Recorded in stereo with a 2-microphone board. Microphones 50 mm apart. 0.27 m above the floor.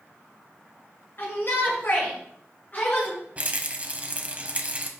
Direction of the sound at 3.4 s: 30° right (ahead or behind).